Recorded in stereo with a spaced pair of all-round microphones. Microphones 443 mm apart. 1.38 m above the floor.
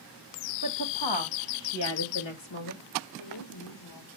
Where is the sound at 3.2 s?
80° left, 2.5 m.